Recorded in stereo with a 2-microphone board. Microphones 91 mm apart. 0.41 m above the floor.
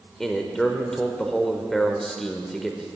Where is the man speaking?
5° left (ahead or behind), 1.0 m.